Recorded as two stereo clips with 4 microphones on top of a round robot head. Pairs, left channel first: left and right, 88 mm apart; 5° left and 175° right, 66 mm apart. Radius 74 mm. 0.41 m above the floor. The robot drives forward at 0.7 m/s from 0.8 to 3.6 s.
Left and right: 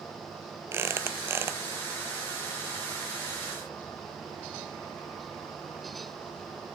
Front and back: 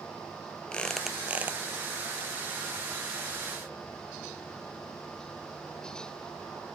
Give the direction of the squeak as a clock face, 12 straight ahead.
2 o'clock.